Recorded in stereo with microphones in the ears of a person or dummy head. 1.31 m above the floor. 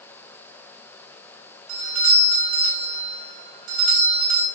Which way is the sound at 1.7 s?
80° right.